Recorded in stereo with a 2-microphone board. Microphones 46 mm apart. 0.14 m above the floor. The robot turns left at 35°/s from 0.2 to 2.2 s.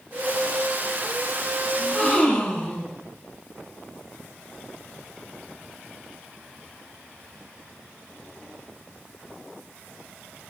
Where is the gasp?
20° left (ahead or behind), 2.5 m; by 3.0 s 30° left (ahead or behind), 2.5 m.